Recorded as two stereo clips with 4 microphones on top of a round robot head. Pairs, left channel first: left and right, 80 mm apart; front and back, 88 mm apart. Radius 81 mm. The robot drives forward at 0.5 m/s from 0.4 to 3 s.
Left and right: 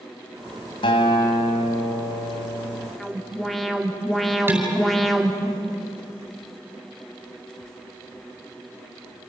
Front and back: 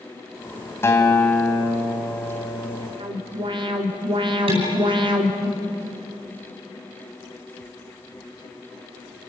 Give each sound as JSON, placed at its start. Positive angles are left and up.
{"t": 0.8, "sound": "a guitar", "azimuth_deg": 60, "distance_m": 3.0}
{"t": 3.0, "sound": "an alarm", "azimuth_deg": 180, "distance_m": 3.0}
{"t": 4.5, "sound": "dishes clattering", "azimuth_deg": -155, "distance_m": 10.0}